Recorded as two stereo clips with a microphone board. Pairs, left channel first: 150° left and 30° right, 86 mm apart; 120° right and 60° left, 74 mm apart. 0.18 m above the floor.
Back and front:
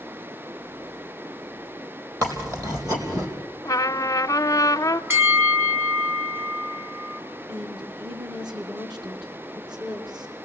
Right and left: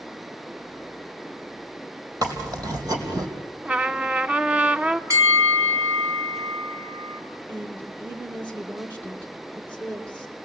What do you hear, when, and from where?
2.2 s chewing: 15° left, 4 m
3.6 s a trumpet: 130° left, 0.6 m
5.1 s a bell: 30° left, 2 m
7.5 s a woman speaking: 50° right, 3 m